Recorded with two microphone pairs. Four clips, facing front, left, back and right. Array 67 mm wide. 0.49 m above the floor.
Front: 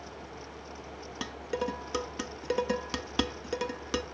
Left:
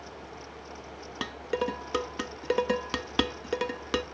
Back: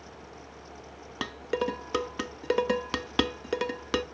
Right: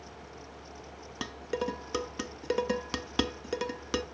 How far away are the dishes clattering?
About 0.5 m.